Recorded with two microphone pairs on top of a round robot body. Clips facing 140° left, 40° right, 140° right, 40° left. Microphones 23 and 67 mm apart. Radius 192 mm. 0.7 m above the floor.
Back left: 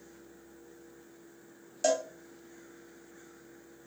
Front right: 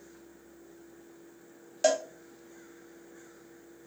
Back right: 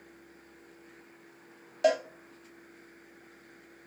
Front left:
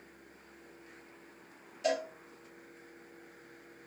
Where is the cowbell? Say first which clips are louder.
Front right 2 dB, back right 6 dB; 110° right, 0.6 m.